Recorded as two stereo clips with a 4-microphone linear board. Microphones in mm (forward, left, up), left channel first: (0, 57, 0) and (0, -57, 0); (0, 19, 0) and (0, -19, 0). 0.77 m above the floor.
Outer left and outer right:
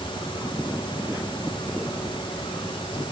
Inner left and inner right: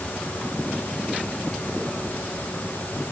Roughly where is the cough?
No cough in this recording.